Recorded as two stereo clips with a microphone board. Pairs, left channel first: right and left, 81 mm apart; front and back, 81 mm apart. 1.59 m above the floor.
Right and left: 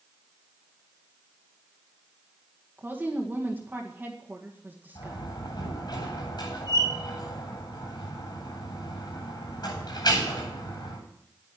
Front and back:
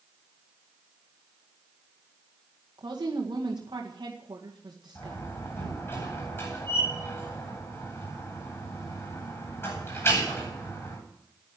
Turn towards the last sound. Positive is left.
turn(degrees=-60)